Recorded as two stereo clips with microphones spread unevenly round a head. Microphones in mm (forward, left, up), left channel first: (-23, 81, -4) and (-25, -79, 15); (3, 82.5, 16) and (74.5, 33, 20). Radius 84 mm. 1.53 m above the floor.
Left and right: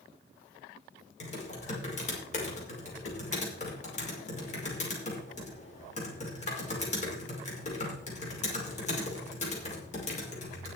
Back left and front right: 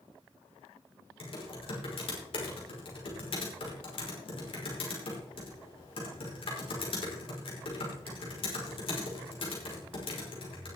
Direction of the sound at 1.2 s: 135° left.